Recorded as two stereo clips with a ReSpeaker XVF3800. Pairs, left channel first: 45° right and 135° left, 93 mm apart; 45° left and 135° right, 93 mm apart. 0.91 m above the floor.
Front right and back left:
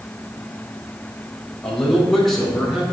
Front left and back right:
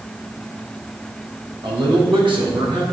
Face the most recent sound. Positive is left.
turn(degrees=-140)